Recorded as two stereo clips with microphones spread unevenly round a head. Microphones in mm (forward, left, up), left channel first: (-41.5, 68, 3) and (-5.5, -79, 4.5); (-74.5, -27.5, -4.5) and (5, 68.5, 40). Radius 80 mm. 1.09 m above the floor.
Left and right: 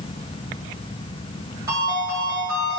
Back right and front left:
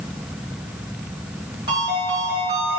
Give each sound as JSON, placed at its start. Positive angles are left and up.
{"t": 1.7, "sound": "a ringtone", "azimuth_deg": -10, "distance_m": 2.5}